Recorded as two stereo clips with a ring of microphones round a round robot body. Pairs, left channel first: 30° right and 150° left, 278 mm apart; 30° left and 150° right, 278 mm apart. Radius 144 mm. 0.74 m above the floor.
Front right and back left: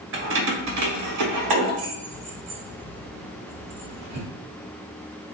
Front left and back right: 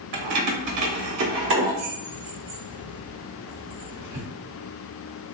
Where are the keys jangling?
160° right, 1.0 m; by 4.2 s 140° left, 2.5 m.